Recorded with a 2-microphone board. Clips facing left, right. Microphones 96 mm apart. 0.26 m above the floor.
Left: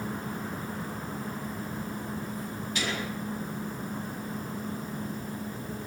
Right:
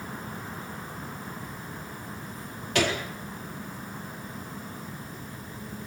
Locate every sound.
2.8 s a gunshot: 80° right, 4 m